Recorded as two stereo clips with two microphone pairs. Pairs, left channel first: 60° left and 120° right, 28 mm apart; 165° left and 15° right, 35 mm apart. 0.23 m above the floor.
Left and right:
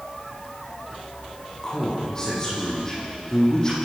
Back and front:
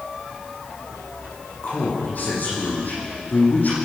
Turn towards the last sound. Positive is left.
turn(degrees=125)